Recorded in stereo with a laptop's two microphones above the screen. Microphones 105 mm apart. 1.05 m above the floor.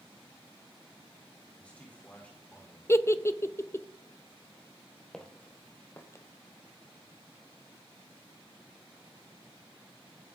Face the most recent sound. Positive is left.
turn(degrees=30)  # may be behind; listen again after turning